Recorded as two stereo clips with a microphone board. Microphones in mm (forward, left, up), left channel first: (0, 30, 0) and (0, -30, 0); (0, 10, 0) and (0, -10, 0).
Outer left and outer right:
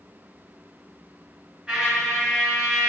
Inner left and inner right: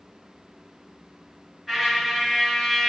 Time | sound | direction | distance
1.7 | a trumpet | 15° right (ahead or behind) | 1.1 m